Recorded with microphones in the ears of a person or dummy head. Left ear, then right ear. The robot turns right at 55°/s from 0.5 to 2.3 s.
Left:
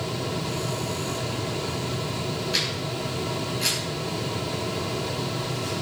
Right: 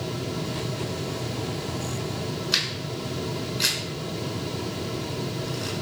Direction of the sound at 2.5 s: 70° right (ahead or behind).